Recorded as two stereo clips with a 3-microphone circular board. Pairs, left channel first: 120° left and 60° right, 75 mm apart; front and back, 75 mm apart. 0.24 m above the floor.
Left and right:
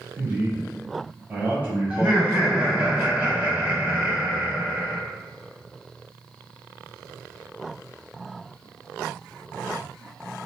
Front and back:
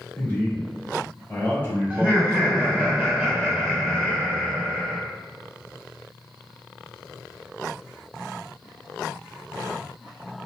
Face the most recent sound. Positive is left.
turn(degrees=-120)